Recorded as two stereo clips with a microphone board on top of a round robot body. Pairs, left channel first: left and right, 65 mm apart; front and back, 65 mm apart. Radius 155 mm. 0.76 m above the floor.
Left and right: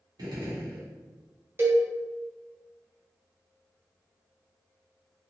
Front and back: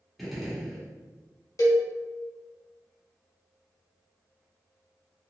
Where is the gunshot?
90° right, 1.1 m.